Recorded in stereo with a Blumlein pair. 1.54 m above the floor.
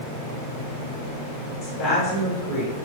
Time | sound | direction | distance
1.6 | a woman speaking | 35° left | 3.5 m